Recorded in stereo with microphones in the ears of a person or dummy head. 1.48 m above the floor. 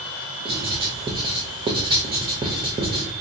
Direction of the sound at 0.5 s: 25° right (ahead or behind).